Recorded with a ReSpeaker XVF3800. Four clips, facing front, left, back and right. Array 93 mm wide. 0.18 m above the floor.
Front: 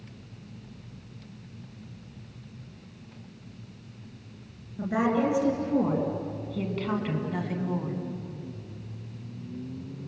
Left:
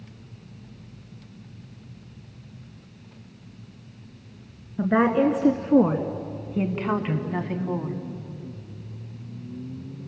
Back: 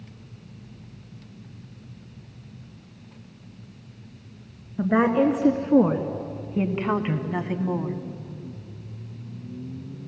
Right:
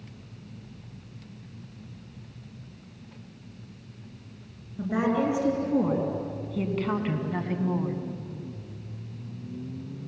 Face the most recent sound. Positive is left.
turn(degrees=-170)